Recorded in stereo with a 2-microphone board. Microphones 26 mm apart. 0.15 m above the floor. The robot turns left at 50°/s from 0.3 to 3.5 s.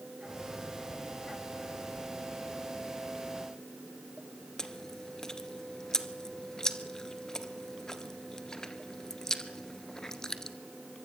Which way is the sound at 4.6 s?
20° left (ahead or behind).